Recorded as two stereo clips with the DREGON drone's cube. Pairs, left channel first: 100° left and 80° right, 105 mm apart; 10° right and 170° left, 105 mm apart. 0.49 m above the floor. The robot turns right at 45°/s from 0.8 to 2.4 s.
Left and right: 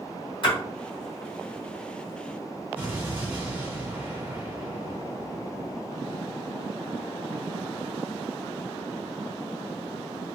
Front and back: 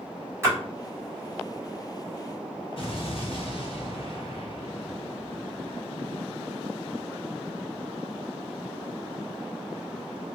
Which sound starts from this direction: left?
A splash, at 0.4 s.